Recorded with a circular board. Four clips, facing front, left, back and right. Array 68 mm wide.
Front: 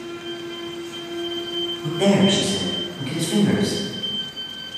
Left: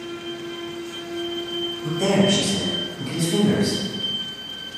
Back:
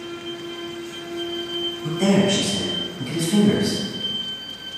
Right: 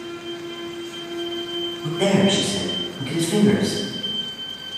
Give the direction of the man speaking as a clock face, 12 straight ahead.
1 o'clock.